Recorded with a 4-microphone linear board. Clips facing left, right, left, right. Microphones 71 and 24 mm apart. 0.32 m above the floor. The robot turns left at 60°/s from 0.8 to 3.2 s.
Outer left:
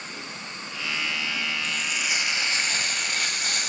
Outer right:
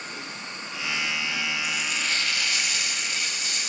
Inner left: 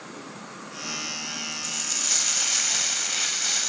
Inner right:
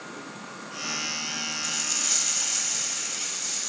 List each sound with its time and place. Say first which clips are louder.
1.6 s frying: even, inner left 2 dB; 170° right, 0.7 m; by 3.7 s 100° left, 0.7 m